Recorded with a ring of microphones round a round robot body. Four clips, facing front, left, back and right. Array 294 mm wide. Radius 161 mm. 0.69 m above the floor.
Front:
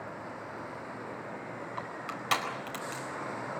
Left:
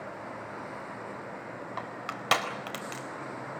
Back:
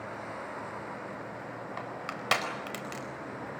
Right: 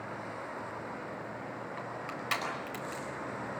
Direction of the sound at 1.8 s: 115° left.